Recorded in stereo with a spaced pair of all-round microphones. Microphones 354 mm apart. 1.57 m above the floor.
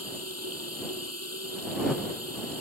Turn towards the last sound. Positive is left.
turn(degrees=-45)  # may be behind; listen again after turning